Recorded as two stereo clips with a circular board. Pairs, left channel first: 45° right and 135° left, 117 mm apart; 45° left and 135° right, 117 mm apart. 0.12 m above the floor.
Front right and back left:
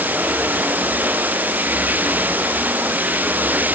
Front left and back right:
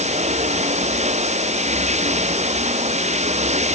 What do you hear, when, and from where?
0.0 s running water: 150° right